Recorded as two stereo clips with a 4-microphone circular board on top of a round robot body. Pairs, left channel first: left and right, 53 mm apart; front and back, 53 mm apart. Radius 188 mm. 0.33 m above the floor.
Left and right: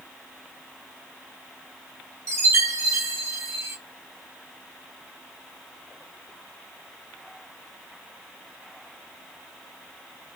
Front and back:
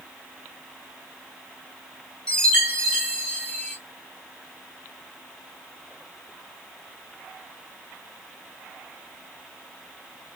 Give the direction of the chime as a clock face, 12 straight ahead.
2 o'clock.